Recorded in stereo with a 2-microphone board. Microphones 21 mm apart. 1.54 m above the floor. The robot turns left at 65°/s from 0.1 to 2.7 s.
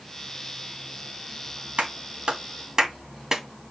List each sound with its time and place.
1.8 s a clap: 80° right, 2.5 m; by 3.4 s 25° right (ahead or behind), 2.5 m